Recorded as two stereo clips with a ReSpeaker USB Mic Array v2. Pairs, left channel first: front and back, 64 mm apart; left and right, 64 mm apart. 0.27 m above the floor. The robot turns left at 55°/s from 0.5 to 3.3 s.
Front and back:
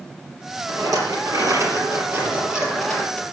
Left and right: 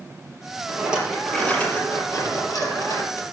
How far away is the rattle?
About 4.5 m.